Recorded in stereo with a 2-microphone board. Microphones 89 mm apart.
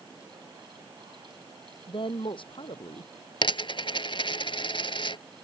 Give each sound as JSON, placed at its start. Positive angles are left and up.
{"t": 1.9, "sound": "a woman speaking", "side_deg": 70}
{"t": 3.4, "sound": "a dropped coin", "side_deg": 70}